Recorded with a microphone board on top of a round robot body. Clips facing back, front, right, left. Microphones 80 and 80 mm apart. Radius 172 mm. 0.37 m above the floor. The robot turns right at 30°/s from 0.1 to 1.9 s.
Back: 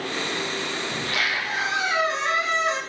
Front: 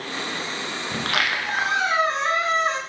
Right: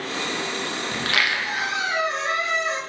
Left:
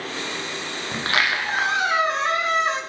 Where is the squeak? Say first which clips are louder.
Front 4 dB, left 3 dB; 20° left, 1.5 m; by 2.8 s 50° left, 1.5 m.